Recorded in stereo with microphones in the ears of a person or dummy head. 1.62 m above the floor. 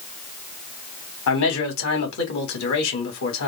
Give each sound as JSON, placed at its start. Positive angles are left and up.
{"t": 1.3, "sound": "a man speaking", "side_deg": 80, "distance_m": 2.0}